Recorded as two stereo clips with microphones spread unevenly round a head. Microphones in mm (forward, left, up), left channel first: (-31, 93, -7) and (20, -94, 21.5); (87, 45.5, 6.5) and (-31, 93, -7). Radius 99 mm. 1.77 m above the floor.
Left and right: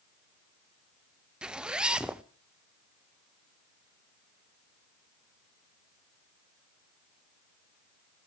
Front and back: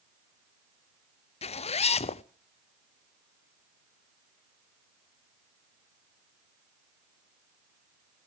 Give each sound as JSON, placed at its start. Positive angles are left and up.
{"t": 1.4, "sound": "a zipper", "azimuth_deg": 5, "distance_m": 0.6}